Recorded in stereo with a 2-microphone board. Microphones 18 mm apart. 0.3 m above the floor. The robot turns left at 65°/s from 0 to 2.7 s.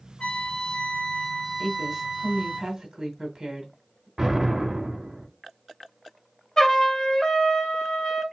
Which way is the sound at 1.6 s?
15° left (ahead or behind).